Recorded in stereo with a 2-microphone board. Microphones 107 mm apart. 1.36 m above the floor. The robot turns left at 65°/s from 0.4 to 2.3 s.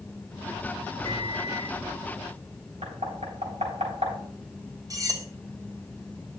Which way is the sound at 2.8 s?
80° right.